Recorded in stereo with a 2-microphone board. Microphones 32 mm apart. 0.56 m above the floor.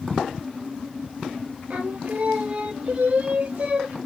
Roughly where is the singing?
Right.